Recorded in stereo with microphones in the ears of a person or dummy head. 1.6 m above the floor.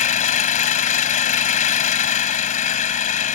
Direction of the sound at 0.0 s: 45° left (ahead or behind).